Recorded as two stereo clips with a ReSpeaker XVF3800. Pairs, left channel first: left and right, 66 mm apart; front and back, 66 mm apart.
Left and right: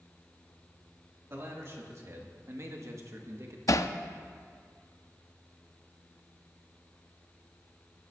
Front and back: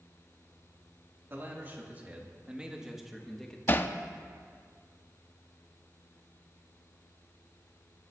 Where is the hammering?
55° left, 0.5 m.